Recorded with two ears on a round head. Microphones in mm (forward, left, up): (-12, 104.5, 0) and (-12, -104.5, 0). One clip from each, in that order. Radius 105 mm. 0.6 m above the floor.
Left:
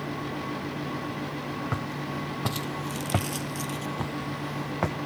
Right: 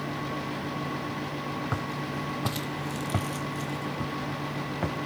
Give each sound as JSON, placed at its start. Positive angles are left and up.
{"t": 1.7, "sound": "footsteps", "side_deg": -10, "distance_m": 1.4}